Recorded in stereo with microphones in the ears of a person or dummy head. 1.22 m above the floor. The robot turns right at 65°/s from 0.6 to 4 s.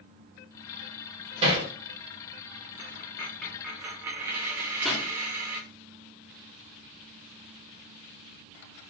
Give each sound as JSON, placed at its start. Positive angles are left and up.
{"t": 1.4, "sound": "hammering", "side_deg": -35, "distance_m": 1.6}
{"t": 2.8, "sound": "a dropped coin", "side_deg": 15, "distance_m": 0.6}
{"t": 4.8, "sound": "a pop", "side_deg": 5, "distance_m": 1.0}